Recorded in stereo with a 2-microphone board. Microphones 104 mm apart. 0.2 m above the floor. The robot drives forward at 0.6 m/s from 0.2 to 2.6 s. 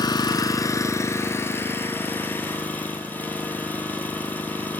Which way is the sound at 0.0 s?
40° left (ahead or behind).